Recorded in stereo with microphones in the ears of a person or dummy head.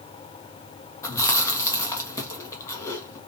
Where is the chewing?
15° left (ahead or behind), 0.6 m.